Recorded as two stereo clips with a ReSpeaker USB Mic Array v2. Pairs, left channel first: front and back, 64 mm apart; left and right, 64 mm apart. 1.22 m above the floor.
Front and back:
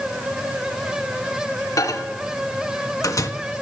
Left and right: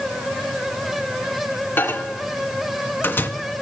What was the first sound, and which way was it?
A microwave, 35° left.